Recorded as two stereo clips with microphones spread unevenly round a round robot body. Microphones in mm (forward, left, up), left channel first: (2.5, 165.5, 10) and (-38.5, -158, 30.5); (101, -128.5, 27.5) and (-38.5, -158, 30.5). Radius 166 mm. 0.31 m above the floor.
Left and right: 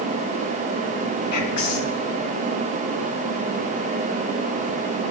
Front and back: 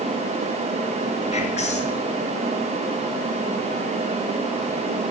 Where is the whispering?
110° left, 3 m.